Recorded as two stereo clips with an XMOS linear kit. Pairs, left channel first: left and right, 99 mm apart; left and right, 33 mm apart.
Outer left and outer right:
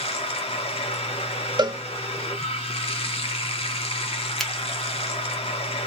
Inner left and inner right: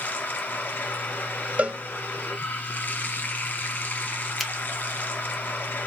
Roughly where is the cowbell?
Right.